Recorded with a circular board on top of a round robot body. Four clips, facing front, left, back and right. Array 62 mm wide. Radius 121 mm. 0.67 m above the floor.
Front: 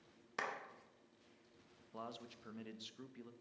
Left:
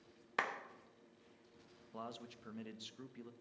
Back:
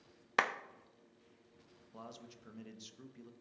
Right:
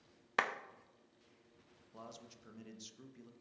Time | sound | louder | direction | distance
0.4 | a clap | right 3 dB, back 10 dB | 160° right | 0.9 m
1.9 | a man speaking | left 4 dB, front 2 dB | 60° left | 1.0 m